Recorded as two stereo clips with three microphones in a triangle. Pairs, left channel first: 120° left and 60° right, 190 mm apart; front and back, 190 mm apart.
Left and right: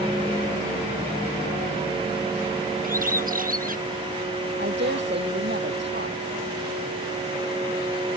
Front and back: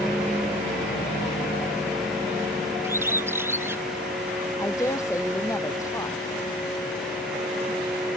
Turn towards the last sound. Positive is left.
turn(degrees=-75)